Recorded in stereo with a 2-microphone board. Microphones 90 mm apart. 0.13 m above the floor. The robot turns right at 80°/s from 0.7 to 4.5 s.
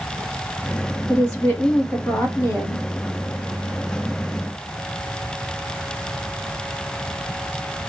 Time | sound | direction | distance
1.1 | a woman speaking | 5° left | 1.6 m